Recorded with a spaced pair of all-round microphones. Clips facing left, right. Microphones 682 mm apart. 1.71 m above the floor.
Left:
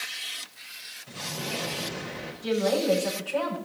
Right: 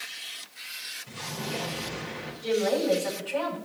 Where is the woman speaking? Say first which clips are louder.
Even; 40° right (ahead or behind), 6 m.